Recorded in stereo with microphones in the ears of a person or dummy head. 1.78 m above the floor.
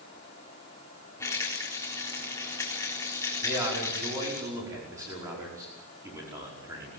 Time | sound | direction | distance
1.2 | a rattle | 15° left (ahead or behind) | 4 m
3.4 | a man speaking | 15° right (ahead or behind) | 5.5 m